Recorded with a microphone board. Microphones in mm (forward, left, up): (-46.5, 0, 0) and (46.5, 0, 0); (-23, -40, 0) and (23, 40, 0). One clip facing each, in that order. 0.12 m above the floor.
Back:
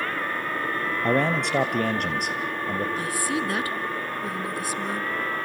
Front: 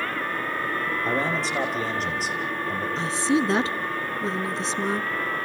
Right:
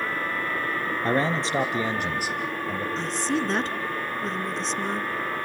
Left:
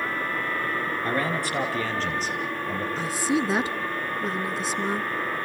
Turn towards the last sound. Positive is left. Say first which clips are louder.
# front 4 dB, left 3 dB
turn(degrees=-15)